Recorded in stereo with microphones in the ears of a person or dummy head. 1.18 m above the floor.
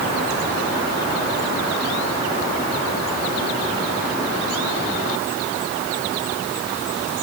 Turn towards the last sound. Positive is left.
No sound to turn to.